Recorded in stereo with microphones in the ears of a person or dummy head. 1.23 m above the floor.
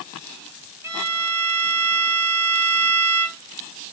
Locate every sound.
0.8 s a violin: 10° right (ahead or behind), 1.8 m